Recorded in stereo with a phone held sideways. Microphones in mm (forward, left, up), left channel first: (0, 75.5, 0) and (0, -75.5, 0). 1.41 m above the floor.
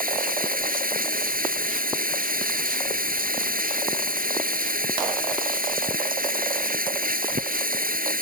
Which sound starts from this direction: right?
Running water, at 0.0 s.